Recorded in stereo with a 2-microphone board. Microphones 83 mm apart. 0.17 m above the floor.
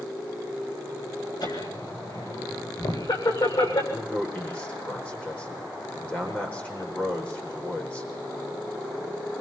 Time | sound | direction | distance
1.4 | laughter | 65° left (ahead or behind) | 9.5 m
3.9 | a man speaking | 15° left (ahead or behind) | 8 m